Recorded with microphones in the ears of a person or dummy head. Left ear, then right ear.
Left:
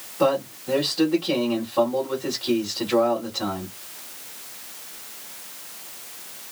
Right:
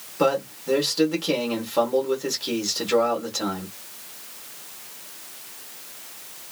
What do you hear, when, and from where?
0.2 s a man speaking: 80° right, 1.6 m